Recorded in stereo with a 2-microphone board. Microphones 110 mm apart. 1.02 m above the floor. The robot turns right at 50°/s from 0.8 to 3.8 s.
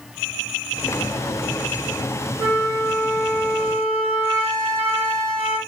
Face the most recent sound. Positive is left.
turn(degrees=-65)